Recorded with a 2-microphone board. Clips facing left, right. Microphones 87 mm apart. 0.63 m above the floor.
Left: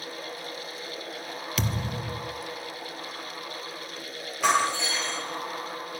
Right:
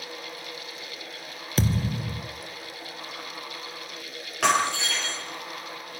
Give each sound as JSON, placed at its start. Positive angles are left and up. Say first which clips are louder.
{"t": 1.6, "sound": "a thud", "louder": "right 6 dB", "side_deg": -35, "distance_m": 1.7}
{"t": 4.4, "sound": "breaking glass", "louder": "even", "side_deg": -70, "distance_m": 8.0}